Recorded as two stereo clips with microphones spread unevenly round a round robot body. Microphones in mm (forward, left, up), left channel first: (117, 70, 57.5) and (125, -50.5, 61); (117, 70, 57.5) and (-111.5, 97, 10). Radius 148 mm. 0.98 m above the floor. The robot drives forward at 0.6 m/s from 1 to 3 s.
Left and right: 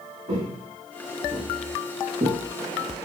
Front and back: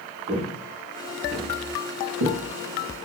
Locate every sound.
0.3 s footsteps: 115° right, 3 m; by 2.4 s 155° right, 4 m